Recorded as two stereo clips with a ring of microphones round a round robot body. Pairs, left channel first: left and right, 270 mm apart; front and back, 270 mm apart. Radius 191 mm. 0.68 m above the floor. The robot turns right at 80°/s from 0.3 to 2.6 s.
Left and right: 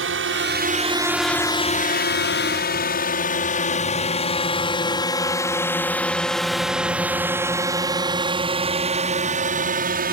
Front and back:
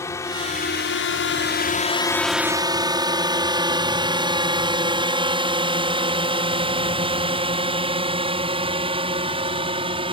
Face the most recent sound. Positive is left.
turn(degrees=-120)